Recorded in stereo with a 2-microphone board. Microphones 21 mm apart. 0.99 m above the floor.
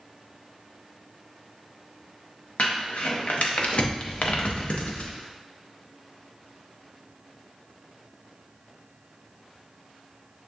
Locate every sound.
2.6 s crumpling: 80° left, 0.7 m